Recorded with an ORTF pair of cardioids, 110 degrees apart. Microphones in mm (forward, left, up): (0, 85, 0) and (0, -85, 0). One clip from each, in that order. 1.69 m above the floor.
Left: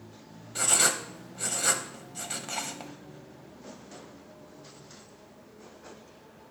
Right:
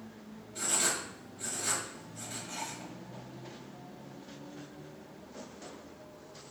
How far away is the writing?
About 0.6 m.